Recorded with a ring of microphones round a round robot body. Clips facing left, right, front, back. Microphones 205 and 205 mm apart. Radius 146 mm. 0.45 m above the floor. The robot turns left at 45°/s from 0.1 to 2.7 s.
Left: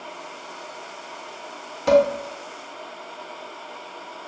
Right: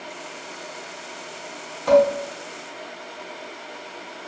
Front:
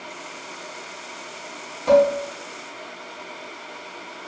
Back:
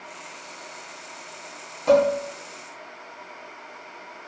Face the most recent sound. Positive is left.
turn(degrees=35)